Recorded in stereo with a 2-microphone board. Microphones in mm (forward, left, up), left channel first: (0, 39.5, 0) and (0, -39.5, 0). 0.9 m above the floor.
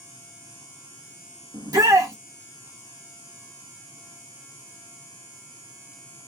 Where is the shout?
50° right (ahead or behind), 1.6 m.